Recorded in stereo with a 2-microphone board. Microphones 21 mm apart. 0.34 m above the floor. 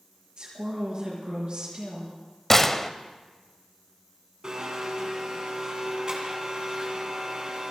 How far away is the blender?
About 3 m.